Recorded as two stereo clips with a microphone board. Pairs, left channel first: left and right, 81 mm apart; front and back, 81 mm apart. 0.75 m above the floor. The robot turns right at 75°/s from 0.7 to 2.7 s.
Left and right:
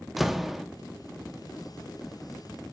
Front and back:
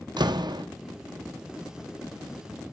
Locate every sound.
0.2 s a door slam: 175° right, 0.7 m